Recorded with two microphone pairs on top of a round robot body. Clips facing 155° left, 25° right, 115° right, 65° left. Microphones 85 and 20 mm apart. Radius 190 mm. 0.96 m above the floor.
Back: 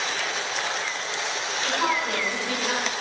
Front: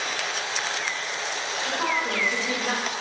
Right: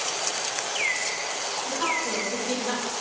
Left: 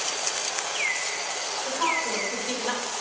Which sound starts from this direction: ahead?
A woman speaking, at 1.6 s.